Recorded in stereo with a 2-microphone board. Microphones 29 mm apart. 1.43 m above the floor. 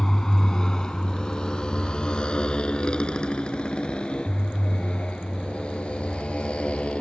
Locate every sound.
0.0 s a motorcycle: 20° left (ahead or behind); by 7.0 s 40° left (ahead or behind)